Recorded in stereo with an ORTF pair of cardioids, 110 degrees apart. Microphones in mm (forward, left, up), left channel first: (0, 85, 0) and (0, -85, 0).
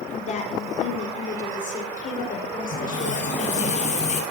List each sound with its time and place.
0.1 s a woman speaking: 40° left, 5 m; by 3.7 s 50° left, 6.5 m
2.7 s a running tap: 45° left, 6 m